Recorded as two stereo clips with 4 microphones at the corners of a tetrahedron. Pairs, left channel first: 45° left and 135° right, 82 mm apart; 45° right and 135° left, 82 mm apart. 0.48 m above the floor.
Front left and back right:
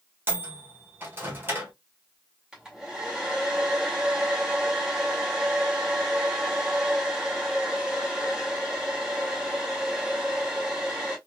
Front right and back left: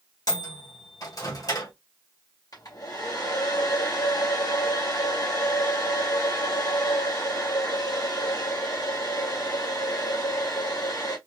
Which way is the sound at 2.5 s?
55° right.